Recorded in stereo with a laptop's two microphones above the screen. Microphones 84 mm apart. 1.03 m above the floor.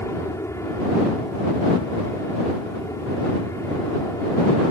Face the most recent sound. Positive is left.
turn(degrees=35)  # may be behind; listen again after turning